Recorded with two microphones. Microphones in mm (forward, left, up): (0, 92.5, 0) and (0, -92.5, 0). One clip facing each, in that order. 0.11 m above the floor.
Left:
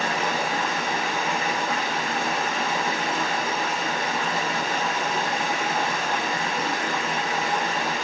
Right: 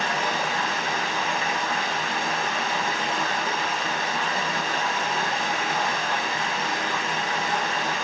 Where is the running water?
55° left (ahead or behind), 1.3 m.